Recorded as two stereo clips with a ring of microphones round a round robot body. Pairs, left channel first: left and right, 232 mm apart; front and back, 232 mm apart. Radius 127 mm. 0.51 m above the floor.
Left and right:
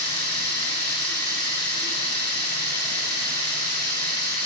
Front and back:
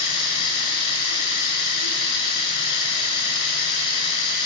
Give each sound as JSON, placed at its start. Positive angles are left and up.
{"t": 0.0, "sound": "running water", "azimuth_deg": 15, "distance_m": 5.5}